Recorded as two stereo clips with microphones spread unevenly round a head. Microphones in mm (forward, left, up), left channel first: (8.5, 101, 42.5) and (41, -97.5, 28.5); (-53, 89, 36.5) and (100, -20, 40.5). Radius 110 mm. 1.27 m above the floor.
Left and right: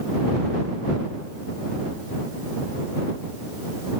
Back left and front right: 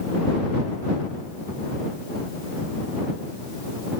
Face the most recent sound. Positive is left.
No sound to turn to.